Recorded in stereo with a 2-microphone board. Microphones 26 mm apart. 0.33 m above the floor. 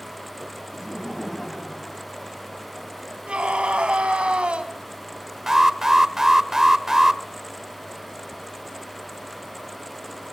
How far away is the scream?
About 2.5 m.